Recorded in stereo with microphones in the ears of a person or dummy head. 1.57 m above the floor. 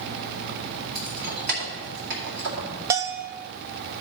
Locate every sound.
0.9 s keys jangling: 55° right (ahead or behind), 2.5 m
2.9 s a bell: 15° right (ahead or behind), 0.6 m